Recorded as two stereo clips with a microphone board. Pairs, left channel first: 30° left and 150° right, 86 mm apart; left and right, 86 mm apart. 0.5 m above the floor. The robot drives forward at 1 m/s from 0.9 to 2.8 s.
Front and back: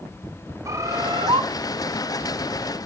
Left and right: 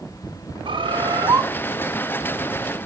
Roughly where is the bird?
Right.